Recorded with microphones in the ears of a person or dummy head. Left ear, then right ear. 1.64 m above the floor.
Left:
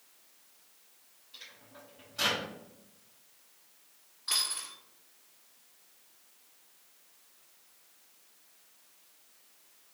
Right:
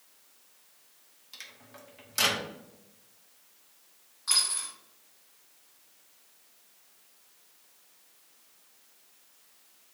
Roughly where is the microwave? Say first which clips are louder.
Right 3 dB; right.